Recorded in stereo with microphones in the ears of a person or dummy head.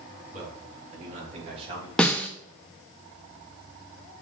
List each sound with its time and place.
0.3 s a man speaking: 50° right (ahead or behind), 4 m; by 1.9 s 30° right (ahead or behind), 2.5 m
2.0 s a snare drum: 5° left (ahead or behind), 0.6 m